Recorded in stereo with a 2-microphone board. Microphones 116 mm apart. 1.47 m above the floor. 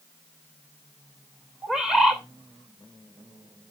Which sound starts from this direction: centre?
A bird, at 1.6 s.